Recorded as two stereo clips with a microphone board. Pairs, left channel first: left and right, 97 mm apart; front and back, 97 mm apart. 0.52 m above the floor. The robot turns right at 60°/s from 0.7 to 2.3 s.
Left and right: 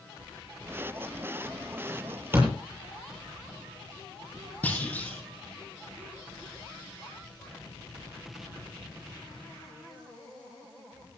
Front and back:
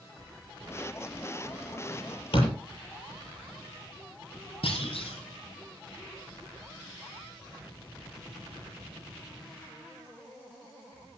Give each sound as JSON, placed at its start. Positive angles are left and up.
{"t": 2.3, "sound": "a door slam", "azimuth_deg": -25, "distance_m": 7.5}
{"t": 4.6, "sound": "a clunk", "azimuth_deg": 15, "distance_m": 4.5}